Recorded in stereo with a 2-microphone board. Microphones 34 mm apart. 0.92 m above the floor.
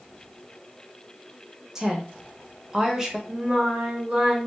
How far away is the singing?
About 1.7 m.